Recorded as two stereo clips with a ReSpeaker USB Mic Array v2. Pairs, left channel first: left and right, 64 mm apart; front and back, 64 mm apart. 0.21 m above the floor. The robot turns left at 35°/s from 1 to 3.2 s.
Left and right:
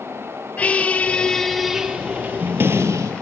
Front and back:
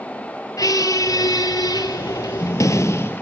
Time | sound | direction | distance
0.6 | a squeak | 20° left | 0.8 m